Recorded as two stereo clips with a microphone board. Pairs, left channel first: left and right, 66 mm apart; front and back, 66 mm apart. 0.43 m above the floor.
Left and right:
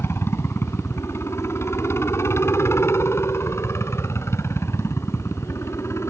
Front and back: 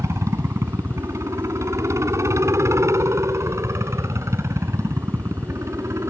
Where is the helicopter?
140° left; by 6.1 s 135° left.